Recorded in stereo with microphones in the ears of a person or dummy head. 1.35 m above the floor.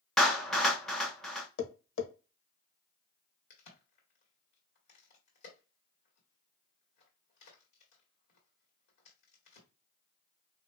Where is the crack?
55° left (ahead or behind), 1.8 m.